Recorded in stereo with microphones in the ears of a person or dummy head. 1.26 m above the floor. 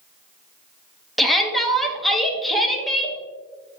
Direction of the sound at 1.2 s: Centre (ahead or behind).